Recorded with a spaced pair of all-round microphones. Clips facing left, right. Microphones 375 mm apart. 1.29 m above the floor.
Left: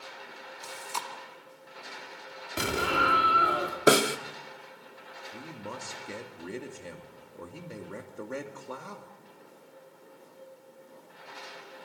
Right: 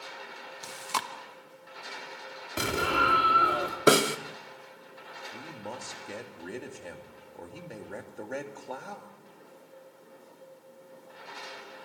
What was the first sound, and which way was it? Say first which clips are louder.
Chewing: right 2 dB; 80° right.